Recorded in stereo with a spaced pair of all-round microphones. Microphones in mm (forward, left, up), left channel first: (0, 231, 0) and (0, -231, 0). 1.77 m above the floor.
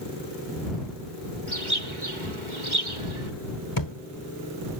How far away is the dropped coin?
No dropped coin in this recording.